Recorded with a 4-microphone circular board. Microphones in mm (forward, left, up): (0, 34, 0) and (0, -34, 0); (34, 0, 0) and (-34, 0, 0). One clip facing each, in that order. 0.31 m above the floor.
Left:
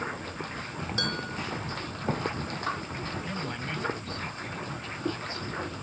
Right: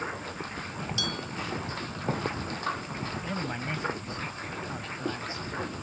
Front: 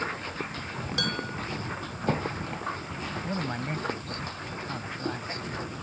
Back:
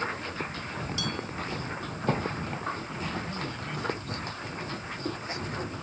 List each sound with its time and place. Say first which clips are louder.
1.0 s dishes clattering: left 2 dB, front 2 dB; 40° left
3.2 s a man speaking: right 1 dB, front 4 dB; 25° right